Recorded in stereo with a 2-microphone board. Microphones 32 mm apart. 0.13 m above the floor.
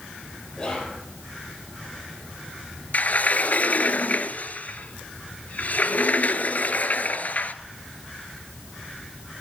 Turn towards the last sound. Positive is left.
turn(degrees=55)  # may be behind; listen again after turning